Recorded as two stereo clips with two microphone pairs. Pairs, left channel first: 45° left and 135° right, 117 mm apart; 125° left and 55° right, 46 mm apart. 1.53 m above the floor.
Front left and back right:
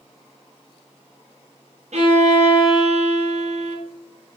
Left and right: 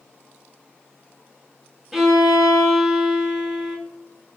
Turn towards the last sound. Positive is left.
turn(degrees=-140)